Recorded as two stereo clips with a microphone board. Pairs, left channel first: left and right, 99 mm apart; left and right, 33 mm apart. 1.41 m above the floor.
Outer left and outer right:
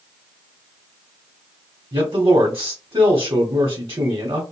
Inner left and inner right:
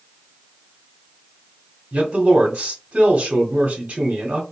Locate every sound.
1.9 s a man speaking: 45° right (ahead or behind), 0.8 m